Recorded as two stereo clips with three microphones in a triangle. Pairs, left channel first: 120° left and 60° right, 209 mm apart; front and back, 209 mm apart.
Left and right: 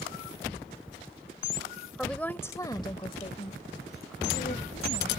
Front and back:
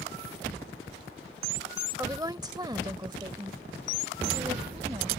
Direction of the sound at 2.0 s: 155° right.